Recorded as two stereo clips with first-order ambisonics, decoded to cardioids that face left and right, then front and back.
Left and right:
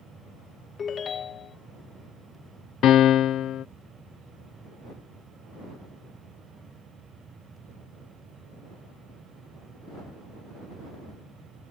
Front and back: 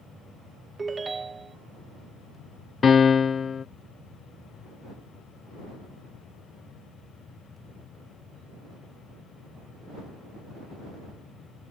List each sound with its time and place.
0.8 s a ringtone: 120° left
2.8 s a piano: 60° left